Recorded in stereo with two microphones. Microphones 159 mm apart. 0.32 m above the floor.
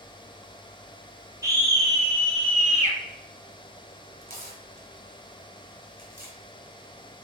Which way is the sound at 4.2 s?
65° right (ahead or behind).